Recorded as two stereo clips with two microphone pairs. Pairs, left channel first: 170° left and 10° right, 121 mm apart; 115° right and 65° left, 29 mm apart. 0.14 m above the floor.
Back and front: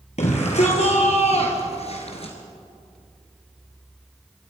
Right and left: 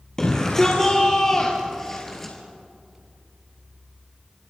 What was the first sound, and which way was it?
A shout, 175° left.